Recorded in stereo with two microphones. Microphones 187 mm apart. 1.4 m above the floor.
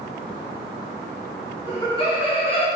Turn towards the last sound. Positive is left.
turn(degrees=30)  # may be behind; listen again after turning